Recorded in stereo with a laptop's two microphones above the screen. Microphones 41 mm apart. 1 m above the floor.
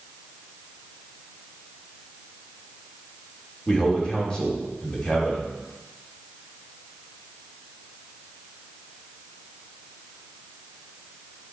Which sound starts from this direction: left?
A man speaking, at 3.7 s.